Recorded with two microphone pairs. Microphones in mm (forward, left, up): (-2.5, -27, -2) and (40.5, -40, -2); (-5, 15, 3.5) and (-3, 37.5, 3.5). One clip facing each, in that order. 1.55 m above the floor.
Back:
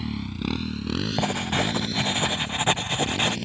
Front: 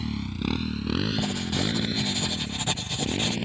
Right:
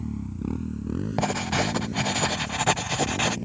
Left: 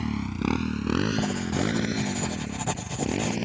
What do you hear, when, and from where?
0.0 s a motorcycle: 80° left; by 3.5 s 60° left
1.2 s writing: 145° right